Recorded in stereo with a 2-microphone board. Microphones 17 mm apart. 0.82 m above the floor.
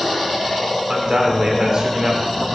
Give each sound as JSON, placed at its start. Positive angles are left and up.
{"t": 0.9, "sound": "a man speaking", "side_deg": -45, "distance_m": 3.0}